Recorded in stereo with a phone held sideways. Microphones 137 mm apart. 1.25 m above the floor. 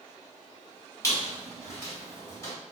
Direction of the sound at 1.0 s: 25° left (ahead or behind).